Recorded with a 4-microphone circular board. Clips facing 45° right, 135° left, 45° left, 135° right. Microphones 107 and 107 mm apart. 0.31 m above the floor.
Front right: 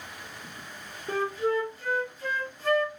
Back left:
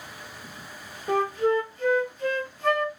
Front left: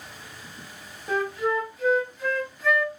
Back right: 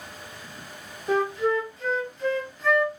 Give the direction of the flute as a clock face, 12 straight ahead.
8 o'clock.